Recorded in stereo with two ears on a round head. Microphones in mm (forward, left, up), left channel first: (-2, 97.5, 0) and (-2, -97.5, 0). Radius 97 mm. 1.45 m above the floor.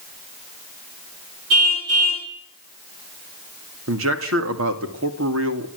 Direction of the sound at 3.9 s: 65° right (ahead or behind).